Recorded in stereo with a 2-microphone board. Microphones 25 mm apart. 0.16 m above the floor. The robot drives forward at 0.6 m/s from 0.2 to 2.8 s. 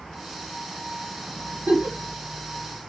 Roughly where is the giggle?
Right.